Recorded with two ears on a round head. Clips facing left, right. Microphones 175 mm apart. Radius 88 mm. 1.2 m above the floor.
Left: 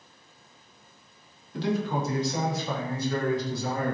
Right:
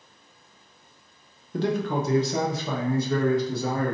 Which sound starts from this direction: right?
A man speaking, at 1.5 s.